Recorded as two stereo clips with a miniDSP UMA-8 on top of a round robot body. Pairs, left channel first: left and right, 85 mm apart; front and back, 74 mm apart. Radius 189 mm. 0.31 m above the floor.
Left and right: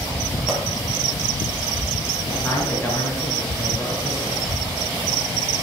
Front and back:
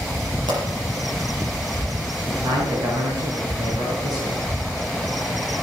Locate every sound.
0.5 s a pop: 175° right, 5.5 m
2.3 s a man speaking: 170° left, 5.5 m